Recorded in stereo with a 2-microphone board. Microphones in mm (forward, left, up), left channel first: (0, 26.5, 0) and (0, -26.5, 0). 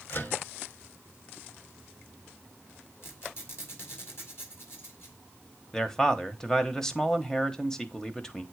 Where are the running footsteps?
I don't hear running footsteps.